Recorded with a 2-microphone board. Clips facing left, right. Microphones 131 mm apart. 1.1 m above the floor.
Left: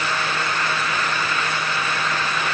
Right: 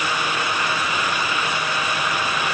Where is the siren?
I don't hear a siren.